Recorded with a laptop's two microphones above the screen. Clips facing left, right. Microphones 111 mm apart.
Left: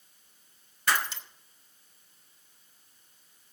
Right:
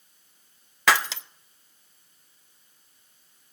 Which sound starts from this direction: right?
Breaking glass, at 0.9 s.